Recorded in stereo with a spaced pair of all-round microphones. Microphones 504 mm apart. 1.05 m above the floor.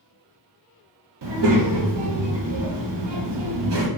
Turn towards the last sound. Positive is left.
turn(degrees=-55)  # may be behind; listen again after turning